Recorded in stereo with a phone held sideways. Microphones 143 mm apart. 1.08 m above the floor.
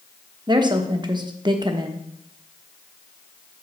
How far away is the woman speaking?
About 0.8 m.